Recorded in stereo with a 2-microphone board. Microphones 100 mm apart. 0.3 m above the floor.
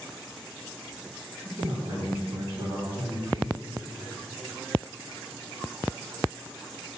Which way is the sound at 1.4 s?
65° right (ahead or behind).